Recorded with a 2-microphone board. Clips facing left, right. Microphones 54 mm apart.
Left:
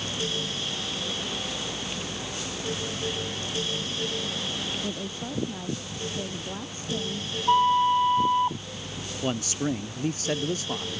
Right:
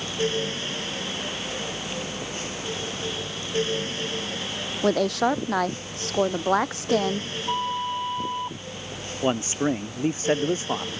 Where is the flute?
25° left (ahead or behind).